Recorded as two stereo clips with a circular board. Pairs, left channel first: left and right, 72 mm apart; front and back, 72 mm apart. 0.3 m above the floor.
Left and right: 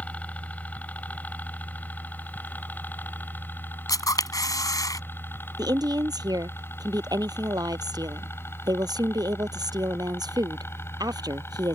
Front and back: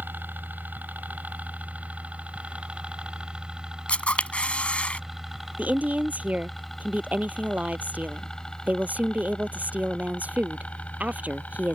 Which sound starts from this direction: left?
A camera shutter, at 3.9 s.